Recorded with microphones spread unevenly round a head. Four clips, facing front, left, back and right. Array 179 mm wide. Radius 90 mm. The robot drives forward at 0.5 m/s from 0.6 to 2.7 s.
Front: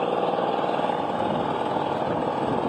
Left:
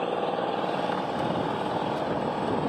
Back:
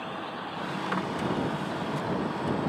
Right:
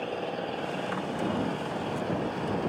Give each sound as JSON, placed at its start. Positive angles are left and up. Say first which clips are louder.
{"t": 0.0, "sound": "an engine running", "louder": "left 6 dB, front 13 dB", "azimuth_deg": 15}